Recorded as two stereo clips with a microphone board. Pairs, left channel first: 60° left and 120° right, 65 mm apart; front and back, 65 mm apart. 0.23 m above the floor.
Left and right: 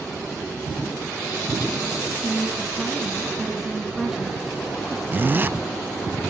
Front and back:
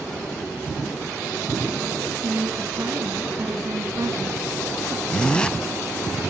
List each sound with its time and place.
2.2 s a woman speaking: 160° left, 2.5 m
5.1 s a zipper: 70° right, 0.7 m